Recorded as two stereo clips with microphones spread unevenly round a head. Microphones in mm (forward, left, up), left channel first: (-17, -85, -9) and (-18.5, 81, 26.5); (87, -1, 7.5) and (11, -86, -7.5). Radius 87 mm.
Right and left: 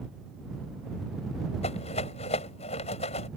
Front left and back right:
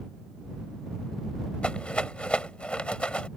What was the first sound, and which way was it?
A rattle, 30° right.